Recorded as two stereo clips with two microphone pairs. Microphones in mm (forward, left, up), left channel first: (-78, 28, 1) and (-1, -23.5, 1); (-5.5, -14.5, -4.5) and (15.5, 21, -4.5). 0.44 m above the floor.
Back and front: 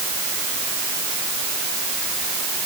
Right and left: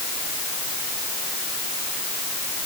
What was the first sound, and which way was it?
Only background noise.